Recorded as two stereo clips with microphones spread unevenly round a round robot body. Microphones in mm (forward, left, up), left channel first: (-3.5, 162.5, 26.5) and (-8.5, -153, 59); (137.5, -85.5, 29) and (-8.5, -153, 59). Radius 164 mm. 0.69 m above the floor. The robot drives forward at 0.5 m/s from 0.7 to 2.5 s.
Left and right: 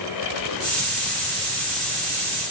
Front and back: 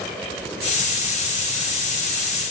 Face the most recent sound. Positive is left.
No sound to turn to.